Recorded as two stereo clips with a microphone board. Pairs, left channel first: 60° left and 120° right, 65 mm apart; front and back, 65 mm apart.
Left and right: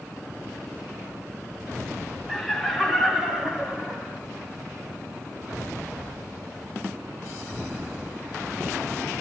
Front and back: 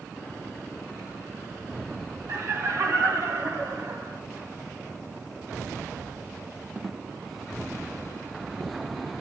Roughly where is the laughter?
Behind left.